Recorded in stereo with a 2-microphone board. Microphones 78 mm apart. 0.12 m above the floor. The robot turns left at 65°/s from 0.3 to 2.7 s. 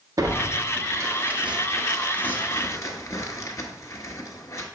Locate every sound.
0.2 s tearing paper: 50° right (ahead or behind), 1.0 m; by 4.7 s 40° left (ahead or behind), 1.0 m